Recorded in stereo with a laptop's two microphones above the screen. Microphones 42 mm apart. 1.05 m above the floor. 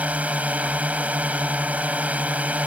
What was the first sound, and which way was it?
A drone, 35° right (ahead or behind).